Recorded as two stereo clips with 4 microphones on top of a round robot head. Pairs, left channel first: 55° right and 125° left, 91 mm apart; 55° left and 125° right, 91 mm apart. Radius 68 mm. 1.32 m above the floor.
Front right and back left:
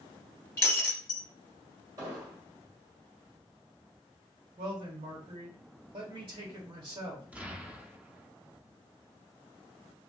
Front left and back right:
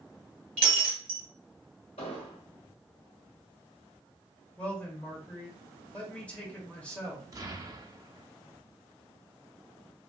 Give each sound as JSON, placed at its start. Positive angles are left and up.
{"t": 0.6, "sound": "breaking glass", "azimuth_deg": -110, "distance_m": 0.7}
{"t": 2.0, "sound": "an explosion", "azimuth_deg": 75, "distance_m": 1.0}
{"t": 4.6, "sound": "a man speaking", "azimuth_deg": 125, "distance_m": 1.4}
{"t": 7.3, "sound": "an explosion", "azimuth_deg": -165, "distance_m": 0.7}